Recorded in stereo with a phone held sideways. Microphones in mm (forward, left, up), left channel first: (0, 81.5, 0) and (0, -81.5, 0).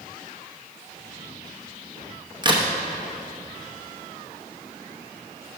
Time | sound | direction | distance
2.4 | a crack | 30° right (ahead or behind) | 0.9 m